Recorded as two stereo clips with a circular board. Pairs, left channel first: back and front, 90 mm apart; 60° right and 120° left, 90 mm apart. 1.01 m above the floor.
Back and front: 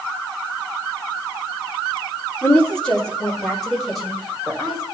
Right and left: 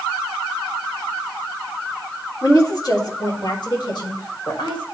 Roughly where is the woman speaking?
Right.